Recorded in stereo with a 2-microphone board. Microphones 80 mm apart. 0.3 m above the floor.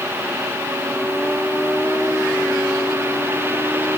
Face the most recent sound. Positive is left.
No sound to turn to.